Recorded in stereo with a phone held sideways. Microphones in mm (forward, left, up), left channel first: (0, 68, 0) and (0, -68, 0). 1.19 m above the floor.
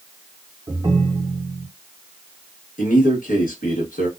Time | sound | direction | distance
0.7 | a ringtone | 30° right (ahead or behind) | 0.6 m
2.8 | a man speaking | 80° left | 1.3 m